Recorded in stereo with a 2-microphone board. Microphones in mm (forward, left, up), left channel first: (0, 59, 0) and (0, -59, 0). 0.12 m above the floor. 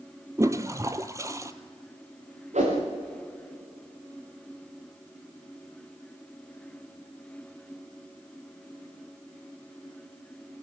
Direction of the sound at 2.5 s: 75° right (ahead or behind).